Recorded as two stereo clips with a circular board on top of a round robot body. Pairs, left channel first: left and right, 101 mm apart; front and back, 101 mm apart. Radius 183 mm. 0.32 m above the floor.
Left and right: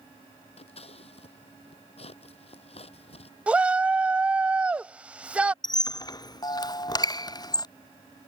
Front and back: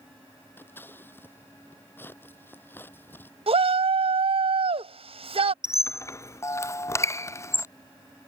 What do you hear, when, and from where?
0.6 s scissors: 70° left
3.5 s a shout: 170° right
5.6 s a squeak: 55° left